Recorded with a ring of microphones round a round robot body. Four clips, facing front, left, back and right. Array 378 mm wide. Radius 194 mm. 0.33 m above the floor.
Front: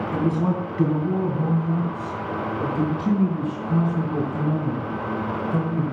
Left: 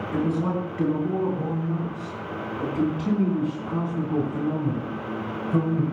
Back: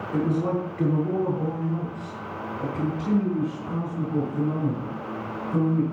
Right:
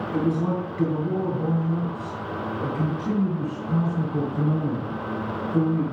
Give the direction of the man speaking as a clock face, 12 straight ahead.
12 o'clock.